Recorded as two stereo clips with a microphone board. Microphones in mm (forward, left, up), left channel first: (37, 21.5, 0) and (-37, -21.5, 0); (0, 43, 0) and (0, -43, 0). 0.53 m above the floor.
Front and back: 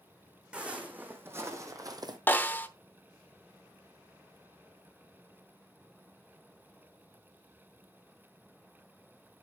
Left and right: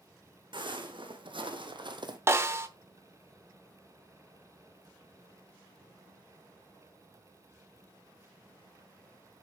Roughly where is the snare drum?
Ahead right.